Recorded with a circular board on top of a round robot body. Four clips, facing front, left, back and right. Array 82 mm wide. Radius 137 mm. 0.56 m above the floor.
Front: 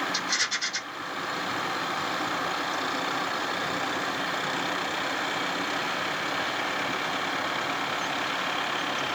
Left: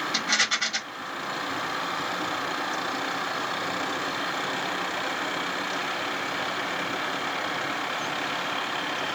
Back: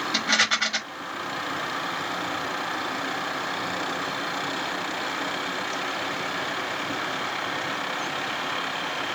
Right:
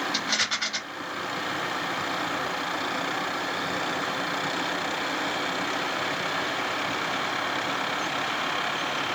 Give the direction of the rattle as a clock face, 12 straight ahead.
6 o'clock.